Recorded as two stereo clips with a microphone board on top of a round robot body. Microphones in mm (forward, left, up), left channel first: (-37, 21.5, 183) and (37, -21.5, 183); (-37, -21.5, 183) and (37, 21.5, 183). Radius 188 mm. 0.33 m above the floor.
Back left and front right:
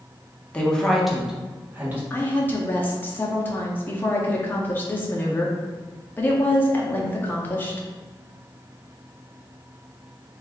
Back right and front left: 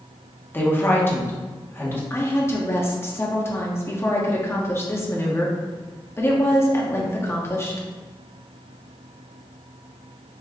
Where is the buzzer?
I don't hear a buzzer.